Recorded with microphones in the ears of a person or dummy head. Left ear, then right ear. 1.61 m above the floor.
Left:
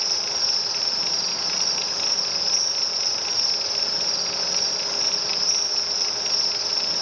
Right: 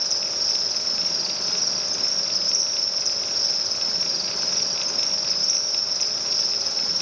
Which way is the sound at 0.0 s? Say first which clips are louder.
Even; 30° left (ahead or behind).